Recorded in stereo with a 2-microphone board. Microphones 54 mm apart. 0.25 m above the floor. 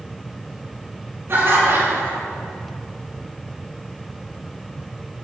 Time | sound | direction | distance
1.3 | laughter | 50° right (ahead or behind) | 3.5 m